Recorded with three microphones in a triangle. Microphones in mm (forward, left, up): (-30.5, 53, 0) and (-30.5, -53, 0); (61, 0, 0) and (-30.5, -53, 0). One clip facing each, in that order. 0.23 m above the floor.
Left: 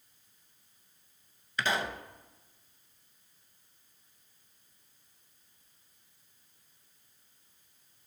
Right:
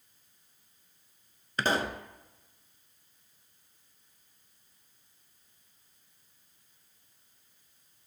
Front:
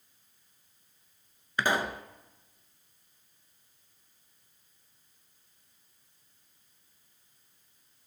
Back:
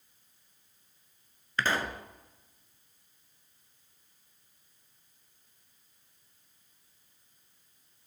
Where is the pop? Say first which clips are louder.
Right 3 dB, front 2 dB; 45° right, 0.5 m.